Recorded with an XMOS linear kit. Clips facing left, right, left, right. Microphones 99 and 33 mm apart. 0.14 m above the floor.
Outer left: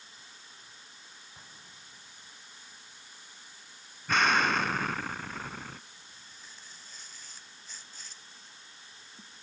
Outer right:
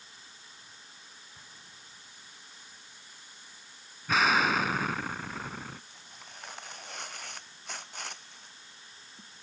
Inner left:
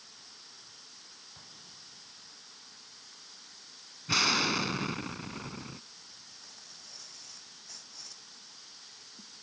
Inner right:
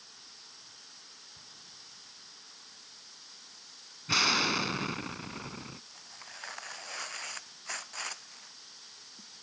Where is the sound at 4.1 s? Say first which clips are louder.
Even, even; 5° right (ahead or behind).